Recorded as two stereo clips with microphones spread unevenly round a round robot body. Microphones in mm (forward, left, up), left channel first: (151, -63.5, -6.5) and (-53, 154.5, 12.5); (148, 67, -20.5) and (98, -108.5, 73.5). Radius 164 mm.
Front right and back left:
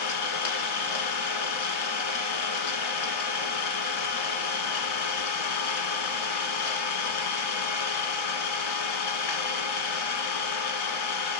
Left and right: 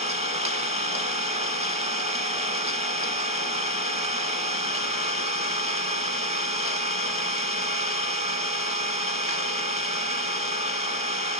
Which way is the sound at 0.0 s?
50° right.